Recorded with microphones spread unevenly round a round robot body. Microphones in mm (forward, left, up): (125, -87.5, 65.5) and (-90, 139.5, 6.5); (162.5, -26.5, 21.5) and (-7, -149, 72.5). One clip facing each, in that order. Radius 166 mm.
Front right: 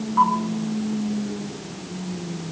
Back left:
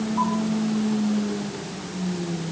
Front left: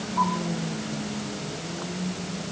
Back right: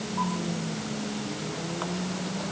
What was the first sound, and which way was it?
Only background noise.